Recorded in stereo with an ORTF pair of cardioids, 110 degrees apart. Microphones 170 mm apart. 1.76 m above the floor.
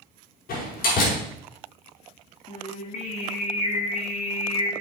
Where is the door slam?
65° left, 6 m.